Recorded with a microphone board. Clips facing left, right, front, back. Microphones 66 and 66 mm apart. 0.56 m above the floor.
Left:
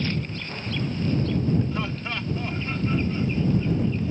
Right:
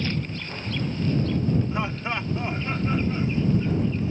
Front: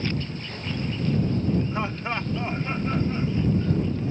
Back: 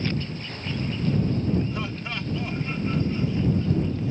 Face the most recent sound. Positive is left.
turn(degrees=-35)